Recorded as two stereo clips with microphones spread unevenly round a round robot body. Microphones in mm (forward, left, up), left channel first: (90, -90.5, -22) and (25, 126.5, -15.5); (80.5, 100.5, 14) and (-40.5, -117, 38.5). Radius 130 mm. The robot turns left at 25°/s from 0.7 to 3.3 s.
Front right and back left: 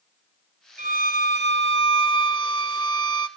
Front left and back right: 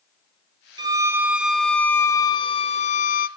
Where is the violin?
165° left, 0.6 m; by 3.3 s 105° left, 0.6 m.